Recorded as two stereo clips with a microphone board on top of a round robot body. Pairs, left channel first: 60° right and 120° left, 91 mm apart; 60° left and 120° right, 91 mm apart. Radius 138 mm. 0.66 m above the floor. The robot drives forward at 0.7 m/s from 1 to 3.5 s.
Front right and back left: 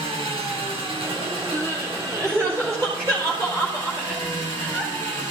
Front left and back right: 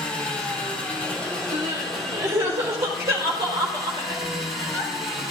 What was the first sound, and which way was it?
An engine running, 135° left.